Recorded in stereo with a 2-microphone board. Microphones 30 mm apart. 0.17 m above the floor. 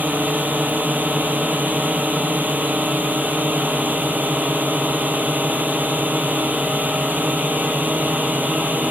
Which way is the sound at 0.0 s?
75° right (ahead or behind).